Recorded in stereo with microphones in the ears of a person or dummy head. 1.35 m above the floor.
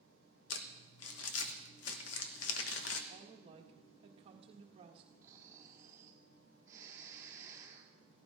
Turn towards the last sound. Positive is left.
turn(degrees=-15)  # may be behind; listen again after turning